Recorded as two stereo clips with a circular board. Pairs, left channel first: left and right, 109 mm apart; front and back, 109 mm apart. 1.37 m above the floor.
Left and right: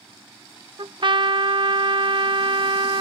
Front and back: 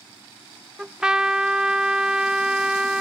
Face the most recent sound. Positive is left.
turn(degrees=-100)